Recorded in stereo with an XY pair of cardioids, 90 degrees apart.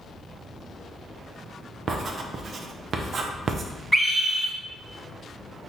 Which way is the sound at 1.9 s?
60° right.